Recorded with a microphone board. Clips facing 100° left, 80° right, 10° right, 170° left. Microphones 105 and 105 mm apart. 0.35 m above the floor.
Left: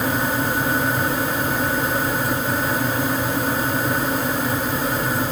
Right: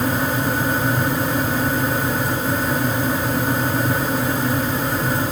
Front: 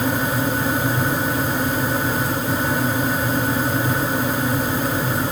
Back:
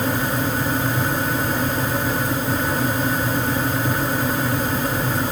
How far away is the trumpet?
I don't hear a trumpet.